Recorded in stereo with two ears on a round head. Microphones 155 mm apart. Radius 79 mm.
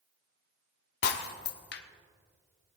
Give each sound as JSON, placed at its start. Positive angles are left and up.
{"t": 1.0, "sound": "breaking glass", "side_deg": 70, "distance_m": 0.8}